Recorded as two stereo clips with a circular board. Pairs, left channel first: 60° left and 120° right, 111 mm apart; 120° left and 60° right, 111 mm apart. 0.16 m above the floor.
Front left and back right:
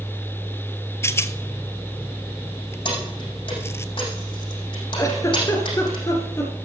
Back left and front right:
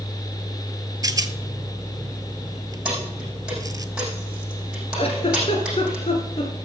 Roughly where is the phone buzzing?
I don't hear a phone buzzing.